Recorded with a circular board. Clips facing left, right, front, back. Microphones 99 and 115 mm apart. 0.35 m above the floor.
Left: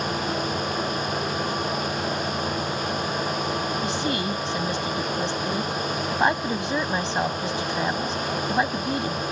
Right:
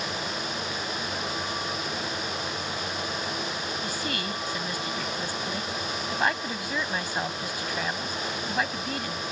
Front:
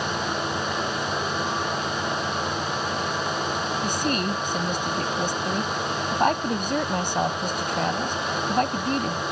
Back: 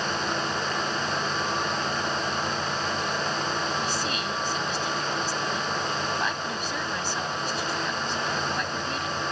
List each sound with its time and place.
3.8 s a woman speaking: 30° left